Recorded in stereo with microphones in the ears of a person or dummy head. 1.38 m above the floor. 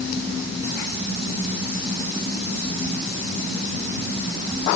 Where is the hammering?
I don't hear hammering.